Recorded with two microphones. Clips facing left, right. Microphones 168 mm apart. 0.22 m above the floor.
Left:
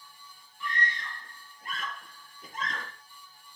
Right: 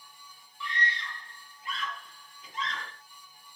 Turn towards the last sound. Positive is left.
turn(degrees=50)  # may be behind; listen again after turning